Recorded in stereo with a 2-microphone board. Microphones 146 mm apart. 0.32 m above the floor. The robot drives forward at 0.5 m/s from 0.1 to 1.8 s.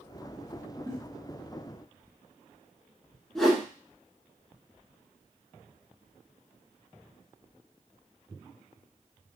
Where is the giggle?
25° left (ahead or behind), 0.8 m.